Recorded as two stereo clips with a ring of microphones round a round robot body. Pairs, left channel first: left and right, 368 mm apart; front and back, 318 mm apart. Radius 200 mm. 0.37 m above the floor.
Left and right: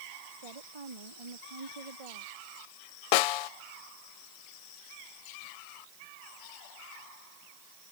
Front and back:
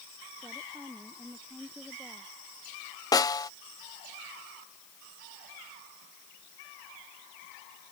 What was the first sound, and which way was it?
A woman speaking, 90° right.